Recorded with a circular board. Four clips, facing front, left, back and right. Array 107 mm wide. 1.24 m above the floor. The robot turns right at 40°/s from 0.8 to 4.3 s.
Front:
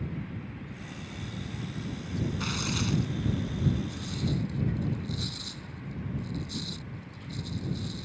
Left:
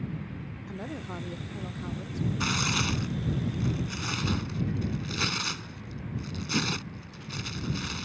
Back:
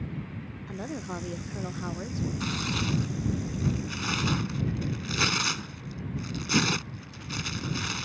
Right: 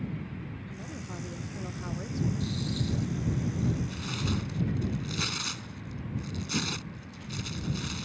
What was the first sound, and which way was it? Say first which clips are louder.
A woman speaking: left 4 dB, back 7 dB; 145° left.